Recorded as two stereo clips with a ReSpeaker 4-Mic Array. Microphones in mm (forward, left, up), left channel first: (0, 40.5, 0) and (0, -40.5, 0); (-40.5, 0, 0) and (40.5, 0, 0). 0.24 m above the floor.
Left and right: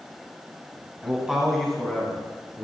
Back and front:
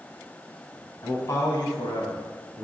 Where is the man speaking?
160° right, 1.7 m; by 2.6 s 160° left, 3 m.